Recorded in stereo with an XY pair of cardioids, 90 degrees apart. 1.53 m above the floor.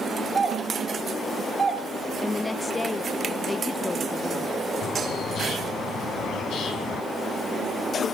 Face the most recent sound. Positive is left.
turn(degrees=65)